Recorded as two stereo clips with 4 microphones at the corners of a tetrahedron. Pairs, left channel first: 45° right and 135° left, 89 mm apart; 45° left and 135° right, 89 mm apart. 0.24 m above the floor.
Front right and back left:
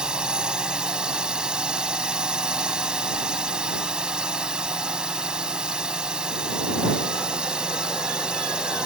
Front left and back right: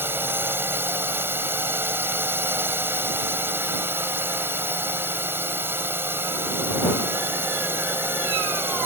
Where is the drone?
155° right.